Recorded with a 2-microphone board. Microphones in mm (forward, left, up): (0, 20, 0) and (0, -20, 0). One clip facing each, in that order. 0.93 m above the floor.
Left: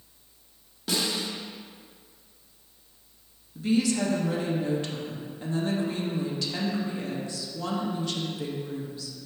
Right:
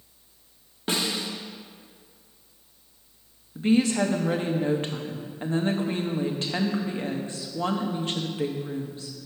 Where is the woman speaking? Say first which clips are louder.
Right 3 dB; 40° right (ahead or behind), 0.9 m.